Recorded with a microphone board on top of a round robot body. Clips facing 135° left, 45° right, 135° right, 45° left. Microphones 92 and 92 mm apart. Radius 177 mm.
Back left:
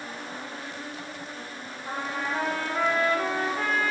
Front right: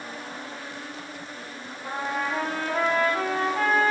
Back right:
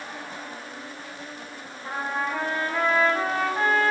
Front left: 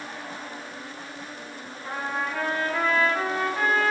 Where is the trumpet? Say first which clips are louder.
Front right 3 dB, back right 1 dB; 65° right, 0.9 m.